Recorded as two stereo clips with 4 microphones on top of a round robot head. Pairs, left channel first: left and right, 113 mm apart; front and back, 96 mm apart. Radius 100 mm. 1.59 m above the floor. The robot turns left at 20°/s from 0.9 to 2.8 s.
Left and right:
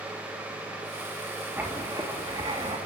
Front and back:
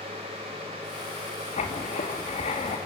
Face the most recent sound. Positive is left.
turn(degrees=-35)